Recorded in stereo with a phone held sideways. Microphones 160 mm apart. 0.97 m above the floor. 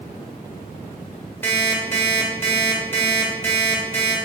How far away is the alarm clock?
About 1.4 m.